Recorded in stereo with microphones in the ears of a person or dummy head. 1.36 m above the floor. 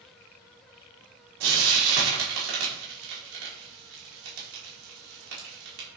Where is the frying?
70° right (ahead or behind), 1.2 m.